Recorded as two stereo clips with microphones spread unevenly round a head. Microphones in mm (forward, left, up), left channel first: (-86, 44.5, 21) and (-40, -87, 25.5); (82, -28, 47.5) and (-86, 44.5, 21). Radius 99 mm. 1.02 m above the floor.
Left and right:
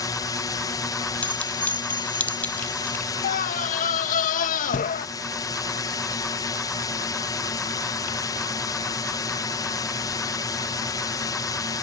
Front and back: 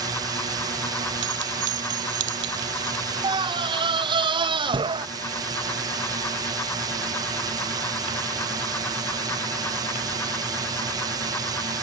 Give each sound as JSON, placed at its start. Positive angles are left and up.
{"t": 0.0, "sound": "a drone", "azimuth_deg": 140}
{"t": 1.2, "sound": "a clink", "azimuth_deg": -170}
{"t": 3.2, "sound": "a scream", "azimuth_deg": 100}